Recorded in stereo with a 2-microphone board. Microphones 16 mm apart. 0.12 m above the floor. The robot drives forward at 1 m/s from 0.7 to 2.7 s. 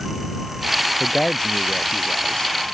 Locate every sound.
1.0 s a man speaking: 45° left (ahead or behind); by 2.5 s 55° left (ahead or behind)